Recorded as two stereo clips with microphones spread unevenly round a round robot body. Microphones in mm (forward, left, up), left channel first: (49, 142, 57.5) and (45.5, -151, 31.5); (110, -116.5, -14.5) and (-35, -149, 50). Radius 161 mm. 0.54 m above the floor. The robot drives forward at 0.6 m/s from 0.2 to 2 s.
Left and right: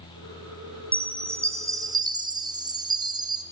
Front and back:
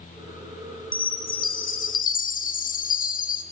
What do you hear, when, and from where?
0.9 s a chime: 5° right, 1.3 m; by 3.4 s 15° right, 0.7 m